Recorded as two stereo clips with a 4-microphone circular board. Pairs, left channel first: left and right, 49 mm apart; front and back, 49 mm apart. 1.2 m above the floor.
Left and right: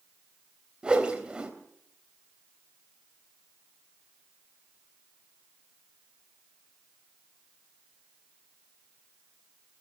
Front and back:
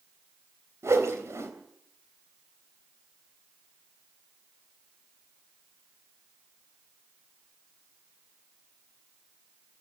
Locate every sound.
0.8 s a whoosh: 160° right, 3.5 m